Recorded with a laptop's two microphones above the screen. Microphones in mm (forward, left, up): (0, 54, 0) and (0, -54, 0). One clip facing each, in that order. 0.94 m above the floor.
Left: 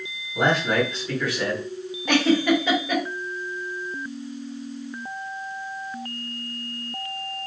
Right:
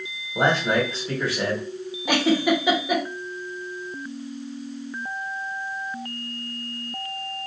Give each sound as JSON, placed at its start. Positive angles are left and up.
{"t": 0.3, "sound": "a man speaking", "side_deg": -35, "distance_m": 1.4}
{"t": 2.1, "sound": "a giggle", "side_deg": -10, "distance_m": 0.7}